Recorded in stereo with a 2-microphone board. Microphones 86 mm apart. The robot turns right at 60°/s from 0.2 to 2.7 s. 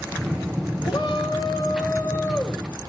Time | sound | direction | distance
0.8 | a shout | 75° left | 4 m